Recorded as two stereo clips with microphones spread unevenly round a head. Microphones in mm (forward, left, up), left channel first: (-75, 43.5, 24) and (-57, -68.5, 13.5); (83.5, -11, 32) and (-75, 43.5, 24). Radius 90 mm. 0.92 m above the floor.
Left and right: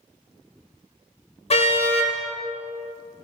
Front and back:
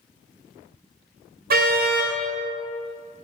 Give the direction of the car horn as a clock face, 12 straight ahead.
8 o'clock.